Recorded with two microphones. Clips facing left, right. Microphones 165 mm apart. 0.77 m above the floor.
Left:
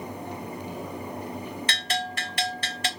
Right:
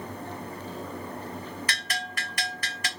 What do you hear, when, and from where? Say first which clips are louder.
1.7 s a bell: left 5 dB; 25° left (ahead or behind), 1.9 m